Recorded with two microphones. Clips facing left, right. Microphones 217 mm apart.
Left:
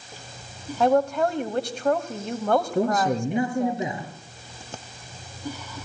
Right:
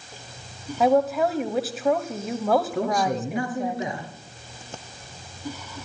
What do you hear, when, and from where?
0.8 s a woman speaking: 5° right (ahead or behind), 1.0 m
2.8 s a man speaking: 25° left (ahead or behind), 4.5 m